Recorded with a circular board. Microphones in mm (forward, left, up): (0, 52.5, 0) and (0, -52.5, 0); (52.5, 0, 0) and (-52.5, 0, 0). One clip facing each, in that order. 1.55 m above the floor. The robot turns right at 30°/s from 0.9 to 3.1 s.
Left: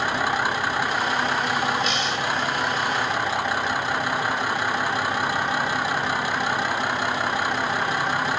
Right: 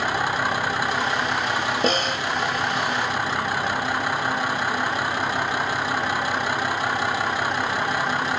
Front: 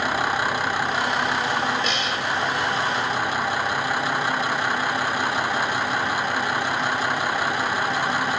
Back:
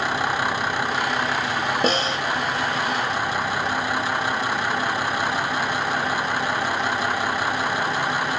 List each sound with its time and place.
1.8 s a snare drum: 135° right; by 2.2 s 125° right